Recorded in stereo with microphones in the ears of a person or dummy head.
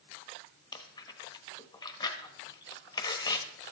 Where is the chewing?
20° left (ahead or behind), 1.1 m.